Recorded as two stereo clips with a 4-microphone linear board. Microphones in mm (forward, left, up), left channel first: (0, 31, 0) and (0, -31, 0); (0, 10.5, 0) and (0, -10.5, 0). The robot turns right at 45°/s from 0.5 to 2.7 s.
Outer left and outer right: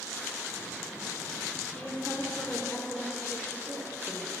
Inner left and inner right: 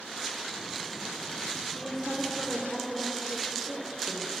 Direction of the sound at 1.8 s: 15° left (ahead or behind).